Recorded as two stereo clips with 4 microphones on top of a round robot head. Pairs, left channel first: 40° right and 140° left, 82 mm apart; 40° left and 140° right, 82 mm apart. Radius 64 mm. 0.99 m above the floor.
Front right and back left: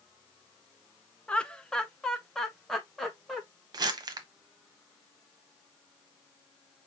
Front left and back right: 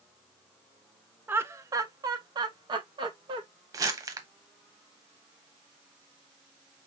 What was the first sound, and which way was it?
Laughter, 100° right.